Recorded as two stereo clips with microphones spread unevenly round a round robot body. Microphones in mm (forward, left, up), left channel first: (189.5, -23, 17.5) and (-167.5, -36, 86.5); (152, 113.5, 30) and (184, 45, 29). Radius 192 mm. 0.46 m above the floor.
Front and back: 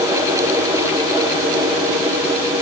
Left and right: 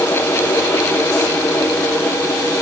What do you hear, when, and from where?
Only background noise.